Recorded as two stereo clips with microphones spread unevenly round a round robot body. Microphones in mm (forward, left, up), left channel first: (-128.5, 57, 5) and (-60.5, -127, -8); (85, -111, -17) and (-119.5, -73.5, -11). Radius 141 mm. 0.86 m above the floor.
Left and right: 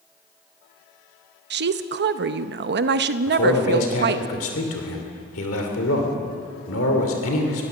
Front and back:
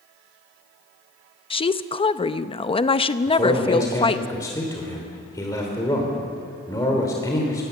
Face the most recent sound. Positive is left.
turn(degrees=70)